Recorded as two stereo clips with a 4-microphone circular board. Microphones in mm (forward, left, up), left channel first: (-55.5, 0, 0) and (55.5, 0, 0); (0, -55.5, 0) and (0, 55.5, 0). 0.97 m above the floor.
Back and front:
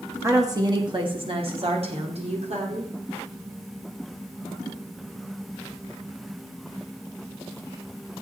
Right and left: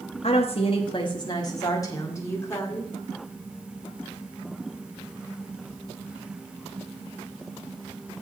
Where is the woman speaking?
65° right, 1.1 m; by 2.9 s 20° right, 2.5 m.